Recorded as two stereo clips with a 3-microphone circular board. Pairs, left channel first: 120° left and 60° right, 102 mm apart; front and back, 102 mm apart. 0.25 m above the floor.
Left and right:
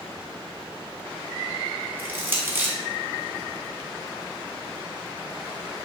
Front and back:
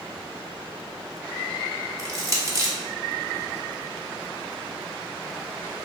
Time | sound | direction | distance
2.0 | crushing | 125° right | 0.6 m